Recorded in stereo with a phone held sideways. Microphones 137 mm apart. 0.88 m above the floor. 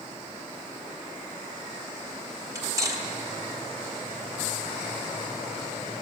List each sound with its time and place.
2.5 s cutlery clinking: 25° right (ahead or behind), 1.5 m